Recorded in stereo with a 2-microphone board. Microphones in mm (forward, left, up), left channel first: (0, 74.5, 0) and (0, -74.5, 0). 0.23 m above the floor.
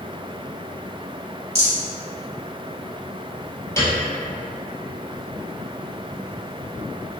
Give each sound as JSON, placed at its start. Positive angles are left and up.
{"t": 1.6, "sound": "a rattle", "side_deg": -50, "distance_m": 1.5}
{"t": 3.8, "sound": "a piano", "side_deg": 20, "distance_m": 0.9}